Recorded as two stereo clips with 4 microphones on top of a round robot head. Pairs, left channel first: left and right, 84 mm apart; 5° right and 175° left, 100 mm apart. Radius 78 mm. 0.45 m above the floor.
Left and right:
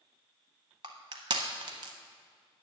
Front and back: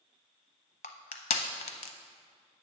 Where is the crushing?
40° right, 0.6 m.